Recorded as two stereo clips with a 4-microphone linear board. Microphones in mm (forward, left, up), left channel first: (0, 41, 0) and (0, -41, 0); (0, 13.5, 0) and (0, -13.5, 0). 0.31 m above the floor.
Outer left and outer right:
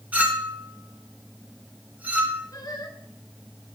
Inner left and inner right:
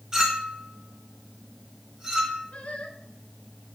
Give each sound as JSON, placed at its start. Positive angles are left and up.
{"t": 0.1, "sound": "a clink", "side_deg": -15, "distance_m": 2.5}
{"t": 2.5, "sound": "singing", "side_deg": 45, "distance_m": 3.0}